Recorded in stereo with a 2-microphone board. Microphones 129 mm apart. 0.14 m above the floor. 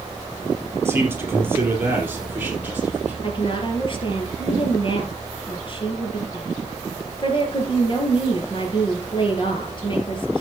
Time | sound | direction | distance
0.8 | a man speaking | 20° right (ahead or behind) | 3.5 m
3.2 | a woman speaking | 40° left (ahead or behind) | 3 m